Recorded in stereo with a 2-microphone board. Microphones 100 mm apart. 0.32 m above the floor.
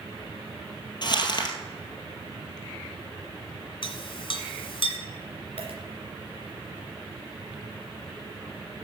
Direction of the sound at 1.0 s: 50° left (ahead or behind).